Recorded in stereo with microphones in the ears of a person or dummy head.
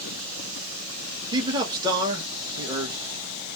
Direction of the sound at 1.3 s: 20° right (ahead or behind).